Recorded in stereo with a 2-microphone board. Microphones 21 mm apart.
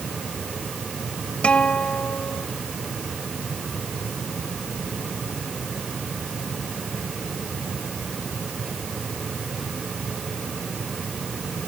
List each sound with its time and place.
1.4 s a guitar: 70° left (ahead or behind)